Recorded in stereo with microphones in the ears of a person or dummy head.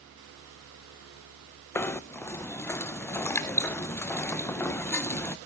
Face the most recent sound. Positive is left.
turn(degrees=15)  # may be behind; listen again after turning